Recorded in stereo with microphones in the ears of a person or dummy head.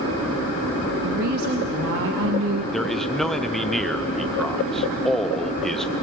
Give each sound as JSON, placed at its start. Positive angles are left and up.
{"t": 1.0, "sound": "a woman speaking", "side_deg": -50, "distance_m": 1.7}
{"t": 2.7, "sound": "a man speaking", "side_deg": 5, "distance_m": 0.8}